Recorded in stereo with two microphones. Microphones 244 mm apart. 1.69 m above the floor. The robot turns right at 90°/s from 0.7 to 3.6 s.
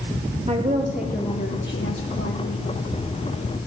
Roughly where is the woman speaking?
Ahead right.